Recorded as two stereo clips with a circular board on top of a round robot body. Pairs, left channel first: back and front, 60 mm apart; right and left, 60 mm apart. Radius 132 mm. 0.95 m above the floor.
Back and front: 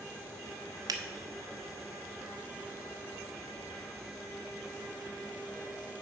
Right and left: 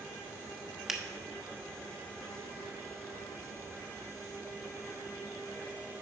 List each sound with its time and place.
0.9 s a finger snap: 10° left, 0.9 m